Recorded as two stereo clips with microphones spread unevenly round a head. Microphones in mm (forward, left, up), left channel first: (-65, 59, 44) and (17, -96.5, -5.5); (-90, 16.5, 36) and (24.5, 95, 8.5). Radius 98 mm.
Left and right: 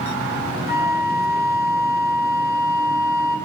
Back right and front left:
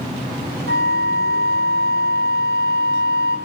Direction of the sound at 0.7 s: 15° left.